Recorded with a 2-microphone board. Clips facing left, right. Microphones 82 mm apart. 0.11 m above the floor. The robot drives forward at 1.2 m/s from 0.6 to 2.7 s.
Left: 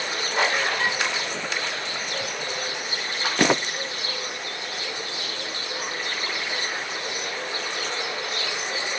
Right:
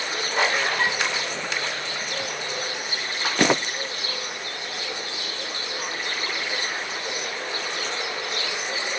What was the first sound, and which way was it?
Dishes clattering, 85° right.